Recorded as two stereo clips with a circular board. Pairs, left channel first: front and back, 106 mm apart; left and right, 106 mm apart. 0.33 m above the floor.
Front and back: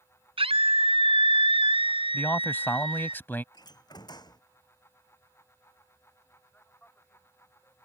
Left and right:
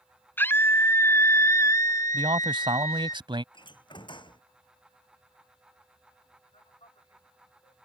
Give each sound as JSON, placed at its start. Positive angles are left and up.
{"t": 0.4, "sound": "a scream", "azimuth_deg": 160}
{"t": 2.1, "sound": "a man speaking", "azimuth_deg": -70}
{"t": 3.5, "sound": "a door slam", "azimuth_deg": 50}
{"t": 6.5, "sound": "a man speaking", "azimuth_deg": 75}